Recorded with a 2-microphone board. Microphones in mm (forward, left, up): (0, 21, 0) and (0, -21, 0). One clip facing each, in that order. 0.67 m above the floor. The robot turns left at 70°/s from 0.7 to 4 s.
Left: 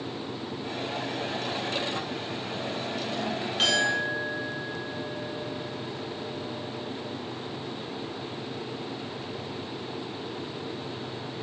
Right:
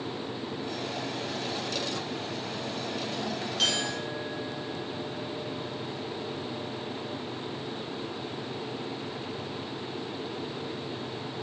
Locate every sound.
3.6 s a clink: 35° left (ahead or behind), 0.8 m; by 7.1 s 15° left (ahead or behind), 0.8 m